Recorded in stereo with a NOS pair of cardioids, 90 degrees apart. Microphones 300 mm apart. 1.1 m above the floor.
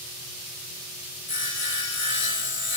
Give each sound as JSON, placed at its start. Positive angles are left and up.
{"t": 1.3, "sound": "sawing", "azimuth_deg": 40, "distance_m": 1.1}